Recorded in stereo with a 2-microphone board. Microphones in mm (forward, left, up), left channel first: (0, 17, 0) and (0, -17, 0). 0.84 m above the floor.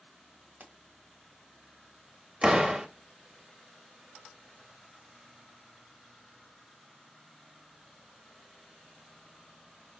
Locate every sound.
0.6 s a pop: 60° right (ahead or behind), 1.3 m
2.4 s a door slam: 30° right (ahead or behind), 0.9 m